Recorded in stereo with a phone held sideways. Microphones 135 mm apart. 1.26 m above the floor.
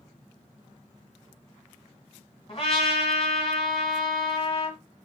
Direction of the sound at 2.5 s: 40° left (ahead or behind).